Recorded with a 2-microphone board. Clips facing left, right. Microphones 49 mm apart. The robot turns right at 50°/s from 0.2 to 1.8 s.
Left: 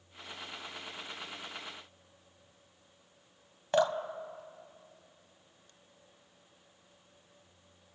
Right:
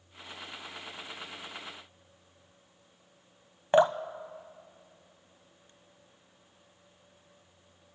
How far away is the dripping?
About 0.6 m.